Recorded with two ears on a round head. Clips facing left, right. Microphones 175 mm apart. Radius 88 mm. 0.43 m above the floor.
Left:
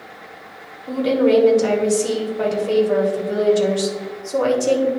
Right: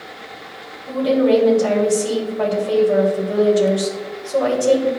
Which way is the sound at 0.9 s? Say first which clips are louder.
Right 1 dB; 35° left (ahead or behind).